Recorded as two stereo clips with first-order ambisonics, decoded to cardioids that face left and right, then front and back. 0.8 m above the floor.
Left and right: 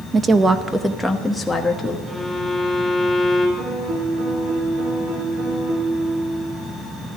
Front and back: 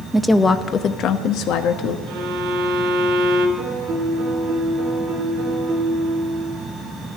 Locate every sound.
0.1 s a woman speaking: 100° right, 0.6 m; by 2.0 s 10° left, 1.2 m
2.1 s a violin: 175° right, 3 m
3.6 s a piano: 125° right, 3 m